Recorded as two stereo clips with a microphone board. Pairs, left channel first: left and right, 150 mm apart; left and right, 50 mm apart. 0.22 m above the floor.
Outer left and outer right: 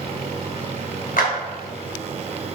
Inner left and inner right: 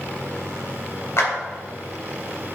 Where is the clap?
60° left (ahead or behind), 2.5 m.